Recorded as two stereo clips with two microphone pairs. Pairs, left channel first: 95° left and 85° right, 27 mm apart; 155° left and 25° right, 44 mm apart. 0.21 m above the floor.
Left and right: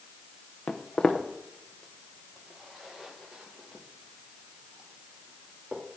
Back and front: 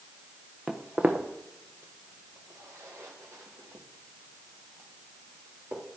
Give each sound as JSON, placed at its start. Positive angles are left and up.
{"t": 0.7, "sound": "footsteps", "azimuth_deg": 45, "distance_m": 1.1}